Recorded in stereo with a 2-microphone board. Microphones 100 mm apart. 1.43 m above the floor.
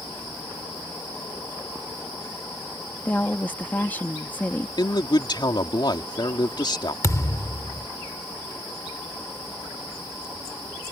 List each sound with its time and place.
3.0 s a woman speaking: 20° left (ahead or behind)
4.8 s a man speaking: 50° left (ahead or behind)
7.0 s a thud: 30° left (ahead or behind)